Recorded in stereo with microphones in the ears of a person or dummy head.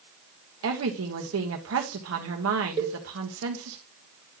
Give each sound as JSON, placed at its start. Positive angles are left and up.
{"t": 0.6, "sound": "a woman speaking", "side_deg": -85, "distance_m": 1.9}
{"t": 2.8, "sound": "a cowbell", "side_deg": -30, "distance_m": 1.5}